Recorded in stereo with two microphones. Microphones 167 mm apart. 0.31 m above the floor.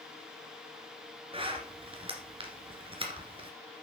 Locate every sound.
1.3 s a zipper: 30° right (ahead or behind), 2.0 m